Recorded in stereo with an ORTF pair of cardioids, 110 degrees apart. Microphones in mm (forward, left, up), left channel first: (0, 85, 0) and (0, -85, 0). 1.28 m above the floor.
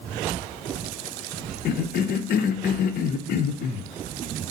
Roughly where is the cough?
Ahead left.